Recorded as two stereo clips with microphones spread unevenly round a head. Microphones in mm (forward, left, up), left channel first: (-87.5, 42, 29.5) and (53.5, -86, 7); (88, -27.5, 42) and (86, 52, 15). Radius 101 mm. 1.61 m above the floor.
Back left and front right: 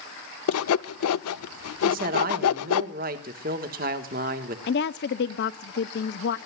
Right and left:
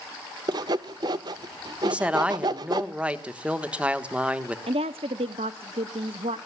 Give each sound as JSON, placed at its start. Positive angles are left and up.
{"t": 0.5, "sound": "sawing", "azimuth_deg": 130, "distance_m": 0.6}
{"t": 1.8, "sound": "a man speaking", "azimuth_deg": 10, "distance_m": 1.4}
{"t": 4.7, "sound": "a woman speaking", "azimuth_deg": 130, "distance_m": 0.6}